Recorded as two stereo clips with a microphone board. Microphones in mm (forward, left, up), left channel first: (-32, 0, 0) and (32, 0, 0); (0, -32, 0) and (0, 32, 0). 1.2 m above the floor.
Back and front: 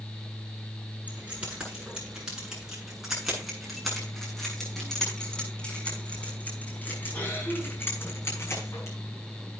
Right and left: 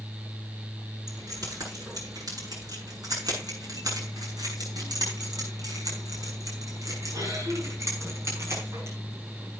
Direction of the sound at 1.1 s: 70° left.